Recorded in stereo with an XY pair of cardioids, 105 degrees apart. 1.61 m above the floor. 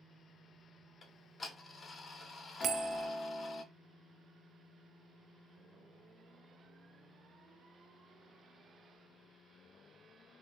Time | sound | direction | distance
1.0 | ticking | 40° left | 0.8 m
2.6 | a bell | 60° right | 0.6 m